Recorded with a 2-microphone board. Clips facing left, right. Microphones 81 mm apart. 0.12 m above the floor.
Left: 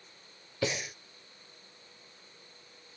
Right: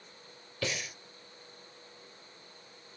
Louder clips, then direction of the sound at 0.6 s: Left 3 dB; 20° left (ahead or behind).